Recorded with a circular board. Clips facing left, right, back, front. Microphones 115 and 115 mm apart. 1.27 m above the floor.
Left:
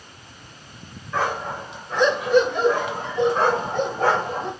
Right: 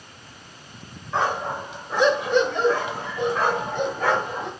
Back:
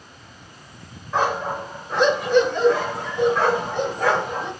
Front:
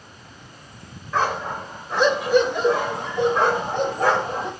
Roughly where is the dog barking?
Behind right.